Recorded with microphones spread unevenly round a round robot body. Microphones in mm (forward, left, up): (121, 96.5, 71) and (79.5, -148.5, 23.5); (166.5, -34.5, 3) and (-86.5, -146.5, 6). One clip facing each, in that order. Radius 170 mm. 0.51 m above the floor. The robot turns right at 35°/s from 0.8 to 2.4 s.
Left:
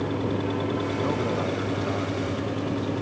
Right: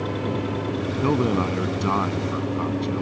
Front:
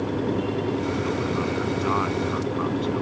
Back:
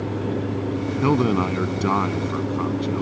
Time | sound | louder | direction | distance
1.0 | a man speaking | right 5 dB, back 6 dB | 155° right | ?